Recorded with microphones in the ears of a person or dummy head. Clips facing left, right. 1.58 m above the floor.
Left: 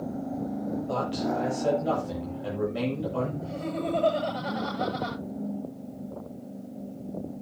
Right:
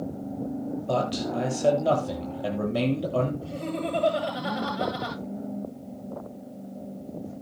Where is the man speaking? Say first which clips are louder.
Right 3 dB; 80° right, 9.5 m.